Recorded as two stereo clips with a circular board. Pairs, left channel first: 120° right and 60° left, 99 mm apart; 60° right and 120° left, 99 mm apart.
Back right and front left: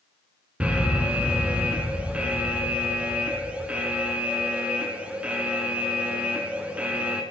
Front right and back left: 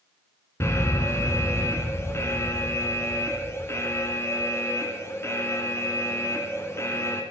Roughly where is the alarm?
Ahead.